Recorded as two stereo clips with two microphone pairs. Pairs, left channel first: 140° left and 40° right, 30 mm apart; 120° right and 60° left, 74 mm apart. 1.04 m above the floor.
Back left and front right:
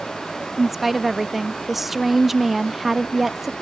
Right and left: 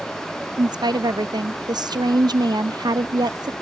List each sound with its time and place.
0.6 s a woman speaking: 45° left